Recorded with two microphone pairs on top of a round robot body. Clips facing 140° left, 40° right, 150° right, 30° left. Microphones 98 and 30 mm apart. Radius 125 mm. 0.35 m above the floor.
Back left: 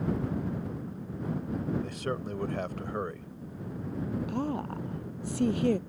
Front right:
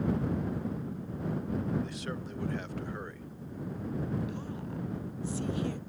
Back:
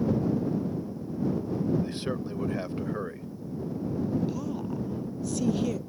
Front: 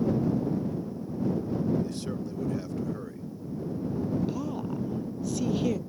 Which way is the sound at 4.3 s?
110° left.